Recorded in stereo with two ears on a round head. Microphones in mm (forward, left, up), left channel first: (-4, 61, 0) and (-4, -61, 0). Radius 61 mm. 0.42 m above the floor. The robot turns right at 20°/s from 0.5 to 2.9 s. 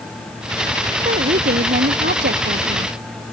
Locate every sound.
1.1 s a woman speaking: 125° right; by 2.9 s 90° right